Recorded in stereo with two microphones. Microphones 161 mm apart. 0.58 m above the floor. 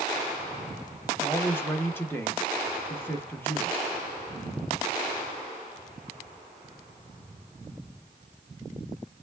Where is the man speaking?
15° left (ahead or behind), 0.8 m.